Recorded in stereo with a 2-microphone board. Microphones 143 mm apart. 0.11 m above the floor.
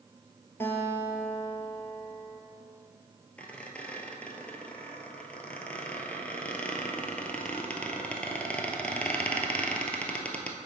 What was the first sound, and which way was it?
A guitar, 15° left (ahead or behind).